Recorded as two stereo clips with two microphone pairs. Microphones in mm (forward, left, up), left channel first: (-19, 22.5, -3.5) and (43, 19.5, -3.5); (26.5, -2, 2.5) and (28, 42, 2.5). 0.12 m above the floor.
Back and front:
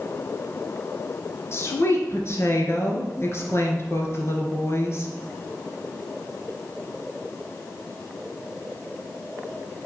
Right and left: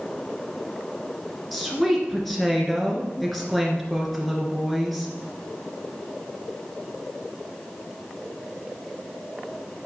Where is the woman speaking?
Straight behind, 1.9 m.